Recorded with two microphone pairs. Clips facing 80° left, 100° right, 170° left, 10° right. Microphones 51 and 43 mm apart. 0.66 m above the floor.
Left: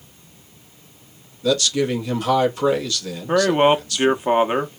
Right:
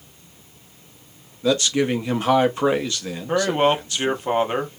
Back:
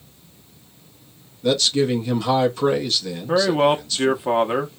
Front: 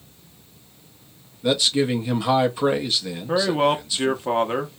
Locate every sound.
1.4 s a man speaking: 70° right, 0.7 m
3.3 s a man speaking: 90° left, 0.6 m